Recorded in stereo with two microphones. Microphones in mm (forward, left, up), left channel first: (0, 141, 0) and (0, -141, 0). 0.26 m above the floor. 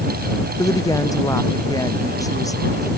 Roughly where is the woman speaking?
Centre.